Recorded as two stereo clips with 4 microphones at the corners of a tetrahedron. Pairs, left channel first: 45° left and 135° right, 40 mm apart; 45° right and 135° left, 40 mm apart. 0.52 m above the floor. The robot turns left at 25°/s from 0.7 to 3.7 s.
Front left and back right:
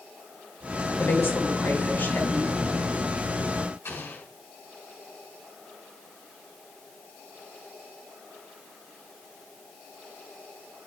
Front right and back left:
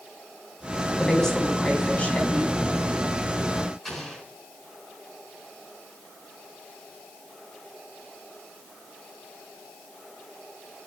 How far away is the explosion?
About 4.5 m.